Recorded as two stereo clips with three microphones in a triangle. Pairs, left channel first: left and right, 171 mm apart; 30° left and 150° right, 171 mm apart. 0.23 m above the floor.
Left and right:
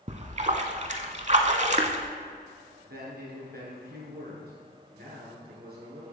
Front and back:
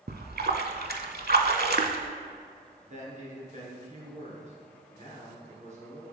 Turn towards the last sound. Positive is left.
turn(degrees=-105)